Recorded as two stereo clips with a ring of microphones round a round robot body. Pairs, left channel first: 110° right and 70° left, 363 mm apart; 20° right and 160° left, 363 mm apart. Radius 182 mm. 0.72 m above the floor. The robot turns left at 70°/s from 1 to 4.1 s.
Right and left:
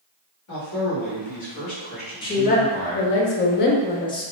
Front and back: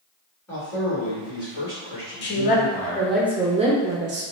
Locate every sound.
0.5 s a man speaking: 105° right, 1.5 m; by 3.2 s 100° left, 1.5 m
2.2 s a woman speaking: 45° right, 0.5 m; by 4.2 s straight behind, 0.5 m